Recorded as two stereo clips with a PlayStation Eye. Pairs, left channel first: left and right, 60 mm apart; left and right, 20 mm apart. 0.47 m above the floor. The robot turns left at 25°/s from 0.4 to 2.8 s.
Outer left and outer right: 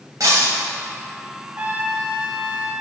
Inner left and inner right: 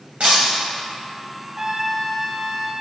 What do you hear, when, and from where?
0.2 s breaking glass: 70° right (ahead or behind), 1.9 m
1.6 s a trumpet: 25° right (ahead or behind), 0.5 m; by 2.7 s 20° right (ahead or behind), 0.5 m